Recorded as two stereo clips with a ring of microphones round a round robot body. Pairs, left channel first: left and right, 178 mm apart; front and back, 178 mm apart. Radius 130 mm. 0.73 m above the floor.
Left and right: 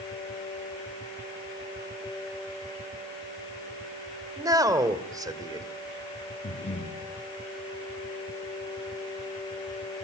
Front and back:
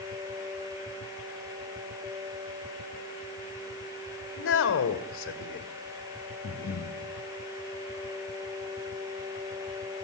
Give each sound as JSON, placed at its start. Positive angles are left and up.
{"t": 4.4, "sound": "a man speaking", "azimuth_deg": -20, "distance_m": 2.5}
{"t": 6.4, "sound": "breathing", "azimuth_deg": 35, "distance_m": 4.0}